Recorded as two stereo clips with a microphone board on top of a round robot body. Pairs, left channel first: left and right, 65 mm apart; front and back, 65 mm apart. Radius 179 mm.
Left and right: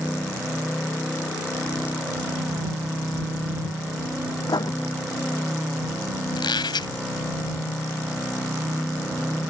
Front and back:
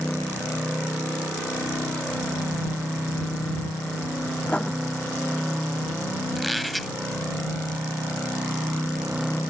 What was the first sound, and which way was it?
Writing, 75° left.